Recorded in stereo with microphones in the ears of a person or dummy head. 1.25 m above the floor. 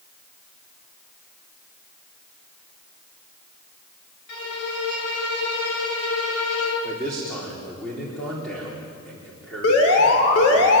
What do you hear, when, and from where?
4.3 s a violin: 90° left, 5.5 m
6.8 s a man speaking: 10° left (ahead or behind), 4 m
9.6 s an alarm: 80° left, 5.5 m